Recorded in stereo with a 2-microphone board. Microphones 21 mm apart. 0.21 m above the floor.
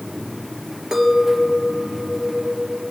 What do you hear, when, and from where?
0.9 s a clink: 25° right (ahead or behind), 3 m